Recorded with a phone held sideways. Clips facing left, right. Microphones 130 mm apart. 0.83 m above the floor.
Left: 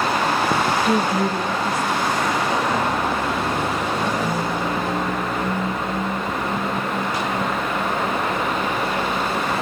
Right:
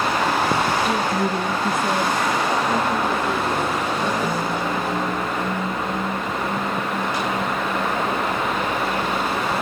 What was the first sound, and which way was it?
A woman speaking, 40° left (ahead or behind).